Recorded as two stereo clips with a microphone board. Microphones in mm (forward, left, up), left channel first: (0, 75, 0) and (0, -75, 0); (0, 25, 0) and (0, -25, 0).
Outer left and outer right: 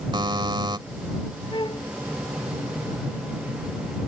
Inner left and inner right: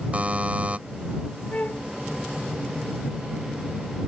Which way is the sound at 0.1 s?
30° right (ahead or behind).